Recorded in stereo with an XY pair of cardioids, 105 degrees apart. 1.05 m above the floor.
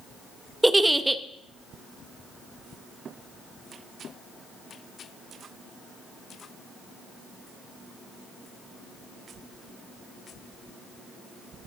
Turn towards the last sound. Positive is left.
turn(degrees=-10)